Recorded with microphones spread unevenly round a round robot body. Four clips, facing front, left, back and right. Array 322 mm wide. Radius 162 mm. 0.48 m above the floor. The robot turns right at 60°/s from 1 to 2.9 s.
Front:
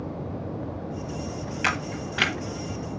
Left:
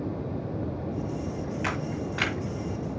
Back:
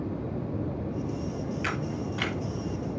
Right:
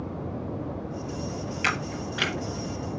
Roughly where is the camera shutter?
Ahead right.